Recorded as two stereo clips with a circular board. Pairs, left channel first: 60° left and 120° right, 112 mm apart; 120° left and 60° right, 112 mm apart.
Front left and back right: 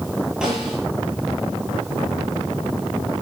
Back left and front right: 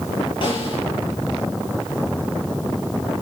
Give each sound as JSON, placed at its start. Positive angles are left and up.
{"t": 0.4, "sound": "a snare drum", "azimuth_deg": 155, "distance_m": 6.5}